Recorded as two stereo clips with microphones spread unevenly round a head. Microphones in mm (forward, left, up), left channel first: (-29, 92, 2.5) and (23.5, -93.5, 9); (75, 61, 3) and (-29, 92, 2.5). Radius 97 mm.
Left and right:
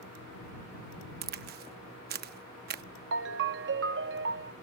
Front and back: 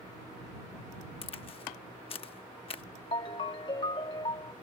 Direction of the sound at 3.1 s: 70° right.